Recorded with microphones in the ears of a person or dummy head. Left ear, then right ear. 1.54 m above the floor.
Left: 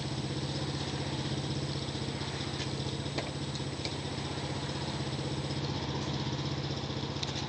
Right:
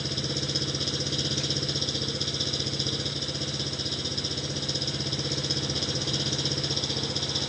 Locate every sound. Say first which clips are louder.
0.0 s an engine running: right 8 dB; 50° right (ahead or behind)